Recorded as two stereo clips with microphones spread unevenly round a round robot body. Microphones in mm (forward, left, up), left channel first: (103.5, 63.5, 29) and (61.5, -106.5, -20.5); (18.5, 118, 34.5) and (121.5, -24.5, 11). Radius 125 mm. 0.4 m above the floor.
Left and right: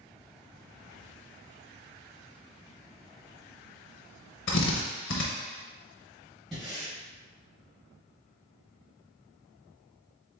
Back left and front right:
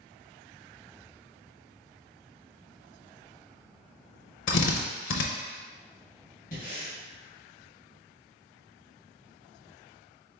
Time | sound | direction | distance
4.5 | a drill | 120° left | 0.6 m
6.5 | breathing | 175° left | 1.2 m